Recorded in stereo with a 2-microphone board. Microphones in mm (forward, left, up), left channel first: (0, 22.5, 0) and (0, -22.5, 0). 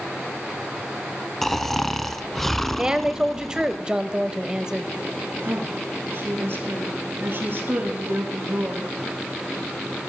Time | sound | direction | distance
1.4 | snoring | 5° left (ahead or behind) | 0.6 m
2.8 | a woman speaking | 15° right (ahead or behind) | 0.9 m
5.4 | a woman speaking | 55° right (ahead or behind) | 4.5 m